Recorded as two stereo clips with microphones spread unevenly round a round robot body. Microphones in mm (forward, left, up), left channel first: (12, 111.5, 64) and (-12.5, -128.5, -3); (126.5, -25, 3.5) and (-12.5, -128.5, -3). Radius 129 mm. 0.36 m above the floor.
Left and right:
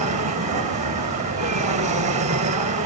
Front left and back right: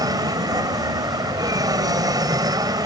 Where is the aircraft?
85° right.